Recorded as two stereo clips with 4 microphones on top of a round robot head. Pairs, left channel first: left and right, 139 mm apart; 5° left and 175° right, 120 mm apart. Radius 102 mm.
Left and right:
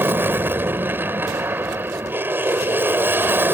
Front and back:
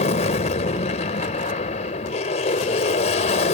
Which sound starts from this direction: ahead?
An aircraft, at 0.0 s.